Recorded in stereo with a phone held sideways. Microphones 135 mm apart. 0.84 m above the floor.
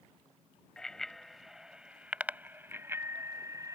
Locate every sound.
0.8 s a bicycle bell: 5° left (ahead or behind); by 3.8 s 25° right (ahead or behind)